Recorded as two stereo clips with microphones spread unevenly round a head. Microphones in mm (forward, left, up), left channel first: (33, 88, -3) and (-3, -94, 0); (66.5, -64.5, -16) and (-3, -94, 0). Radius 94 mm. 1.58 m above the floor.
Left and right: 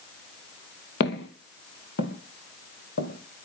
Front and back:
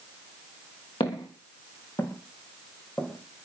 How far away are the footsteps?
About 3 m.